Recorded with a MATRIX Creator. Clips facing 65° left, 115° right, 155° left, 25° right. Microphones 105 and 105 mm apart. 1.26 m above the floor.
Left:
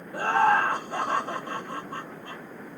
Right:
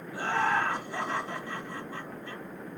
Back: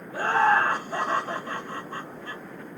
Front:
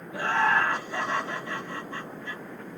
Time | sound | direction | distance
0.1 | laughter | 110° left | 1.5 m